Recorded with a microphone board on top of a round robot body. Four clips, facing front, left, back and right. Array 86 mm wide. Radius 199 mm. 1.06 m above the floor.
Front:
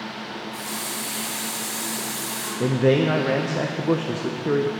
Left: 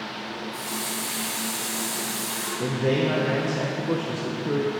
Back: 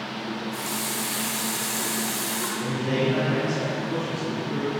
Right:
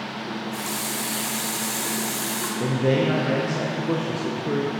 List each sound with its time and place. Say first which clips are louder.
0.3 s a running tap: right 3 dB, back 2 dB; 120° right, 2 m
2.6 s a man speaking: right 2 dB, front 7 dB; 5° right, 0.7 m